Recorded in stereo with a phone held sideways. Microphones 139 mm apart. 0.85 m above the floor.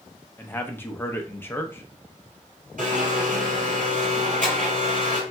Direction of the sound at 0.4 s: 15° left (ahead or behind).